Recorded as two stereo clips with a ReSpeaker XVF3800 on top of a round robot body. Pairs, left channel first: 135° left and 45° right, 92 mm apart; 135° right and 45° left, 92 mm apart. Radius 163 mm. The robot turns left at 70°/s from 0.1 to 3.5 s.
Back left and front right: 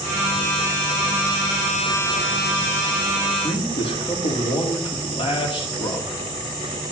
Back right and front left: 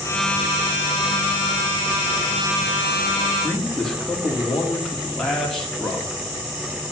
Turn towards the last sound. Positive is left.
turn(degrees=140)